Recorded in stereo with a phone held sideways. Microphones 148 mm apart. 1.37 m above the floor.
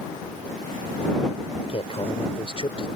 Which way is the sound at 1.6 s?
40° left (ahead or behind).